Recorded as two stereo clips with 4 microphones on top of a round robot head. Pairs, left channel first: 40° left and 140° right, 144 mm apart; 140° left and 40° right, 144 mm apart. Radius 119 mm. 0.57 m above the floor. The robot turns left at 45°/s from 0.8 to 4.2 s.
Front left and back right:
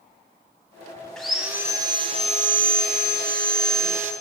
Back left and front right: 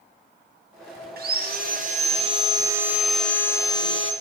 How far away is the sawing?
About 1.1 m.